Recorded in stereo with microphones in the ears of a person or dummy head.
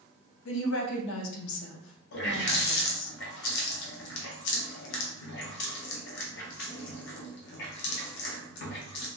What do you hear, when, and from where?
0.5 s a woman speaking: 70° left (ahead or behind), 0.6 m
2.1 s a running tap: 60° left (ahead or behind), 0.6 m